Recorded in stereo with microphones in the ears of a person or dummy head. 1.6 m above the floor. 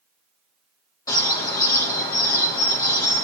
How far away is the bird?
About 1.0 m.